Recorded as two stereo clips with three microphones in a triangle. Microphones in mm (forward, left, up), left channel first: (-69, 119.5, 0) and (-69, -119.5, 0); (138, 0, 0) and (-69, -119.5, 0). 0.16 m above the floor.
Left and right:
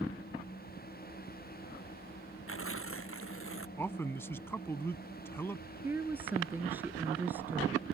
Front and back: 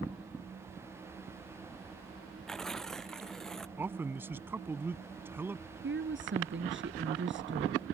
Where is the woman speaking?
170° right.